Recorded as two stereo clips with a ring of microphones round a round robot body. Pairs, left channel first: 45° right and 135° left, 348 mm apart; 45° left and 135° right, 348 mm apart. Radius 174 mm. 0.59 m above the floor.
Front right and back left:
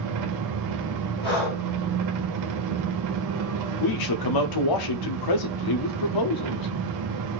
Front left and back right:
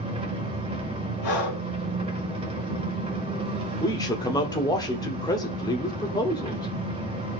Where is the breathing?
15° right, 5 m.